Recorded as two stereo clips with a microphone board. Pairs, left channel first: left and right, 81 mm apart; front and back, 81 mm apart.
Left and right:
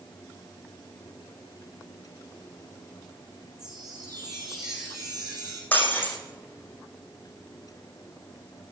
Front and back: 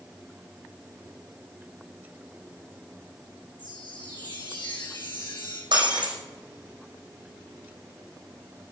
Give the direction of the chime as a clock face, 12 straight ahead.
12 o'clock.